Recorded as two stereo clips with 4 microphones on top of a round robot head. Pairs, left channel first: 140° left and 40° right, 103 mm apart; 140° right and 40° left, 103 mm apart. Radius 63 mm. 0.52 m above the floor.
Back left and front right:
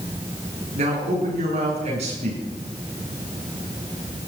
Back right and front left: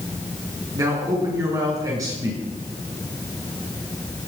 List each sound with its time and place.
0.8 s a man speaking: 20° right, 7 m